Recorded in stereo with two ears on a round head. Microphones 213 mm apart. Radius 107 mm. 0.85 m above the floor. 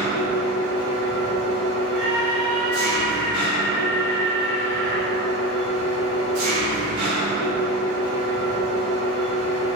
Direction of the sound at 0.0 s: 80° right.